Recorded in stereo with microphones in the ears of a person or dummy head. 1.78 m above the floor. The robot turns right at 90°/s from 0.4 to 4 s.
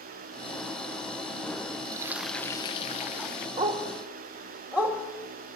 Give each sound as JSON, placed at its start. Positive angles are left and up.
{"t": 1.9, "sound": "frying", "azimuth_deg": -40, "distance_m": 1.0}
{"t": 3.6, "sound": "a dog barking", "side_deg": -45, "distance_m": 2.0}